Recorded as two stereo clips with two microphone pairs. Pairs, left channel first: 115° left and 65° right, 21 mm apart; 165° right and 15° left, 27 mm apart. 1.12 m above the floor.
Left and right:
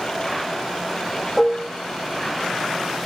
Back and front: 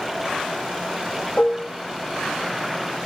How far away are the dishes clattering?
About 0.8 m.